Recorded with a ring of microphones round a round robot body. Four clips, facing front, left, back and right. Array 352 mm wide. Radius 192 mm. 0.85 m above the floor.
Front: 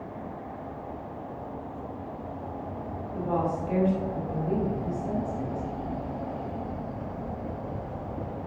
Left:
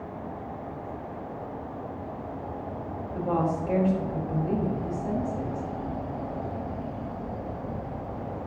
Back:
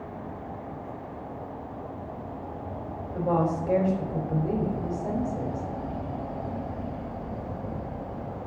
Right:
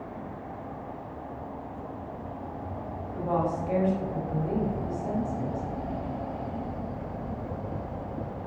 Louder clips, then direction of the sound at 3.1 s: Left 1 dB, back 3 dB; 165° left.